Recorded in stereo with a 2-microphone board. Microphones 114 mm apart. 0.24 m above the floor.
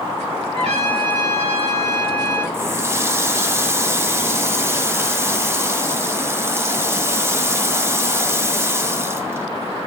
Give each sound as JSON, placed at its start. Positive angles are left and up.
{"t": 0.5, "sound": "a trumpet", "side_deg": -75, "distance_m": 4.0}
{"t": 2.5, "sound": "a running tap", "side_deg": -25, "distance_m": 0.8}